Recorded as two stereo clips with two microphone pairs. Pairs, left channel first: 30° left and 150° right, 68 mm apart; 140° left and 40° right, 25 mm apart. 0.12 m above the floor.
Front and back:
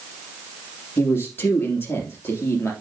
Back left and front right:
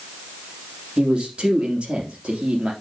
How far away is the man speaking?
About 2.5 m.